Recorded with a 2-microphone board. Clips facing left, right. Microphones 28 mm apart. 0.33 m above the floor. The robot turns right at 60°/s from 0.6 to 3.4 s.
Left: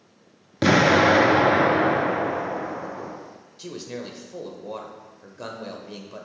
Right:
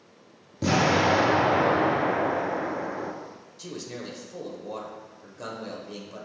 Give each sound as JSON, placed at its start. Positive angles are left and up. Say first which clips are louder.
{"t": 0.6, "sound": "an explosion", "louder": "left 5 dB", "azimuth_deg": 80, "distance_m": 0.8}
{"t": 3.6, "sound": "a man speaking", "louder": "left 3 dB", "side_deg": 15, "distance_m": 0.9}